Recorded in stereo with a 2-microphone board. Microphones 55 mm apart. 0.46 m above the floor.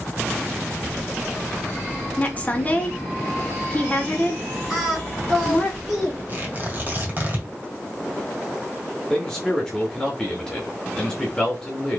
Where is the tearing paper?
35° right (ahead or behind), 2 m.